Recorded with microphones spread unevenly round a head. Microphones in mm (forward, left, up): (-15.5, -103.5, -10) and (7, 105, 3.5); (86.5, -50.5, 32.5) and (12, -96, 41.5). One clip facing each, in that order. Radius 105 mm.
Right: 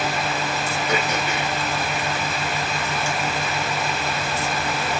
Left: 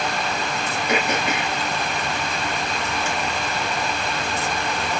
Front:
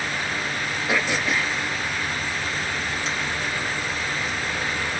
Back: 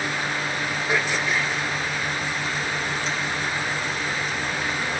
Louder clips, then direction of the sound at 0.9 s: Left 3 dB, front 1 dB; 45° left.